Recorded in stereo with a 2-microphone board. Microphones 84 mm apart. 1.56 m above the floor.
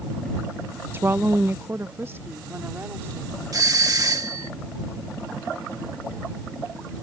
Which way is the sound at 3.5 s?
45° right (ahead or behind).